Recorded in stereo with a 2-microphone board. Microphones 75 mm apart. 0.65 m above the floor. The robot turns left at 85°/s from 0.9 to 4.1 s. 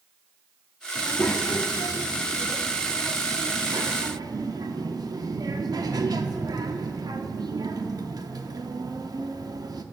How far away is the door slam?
I don't hear a door slam.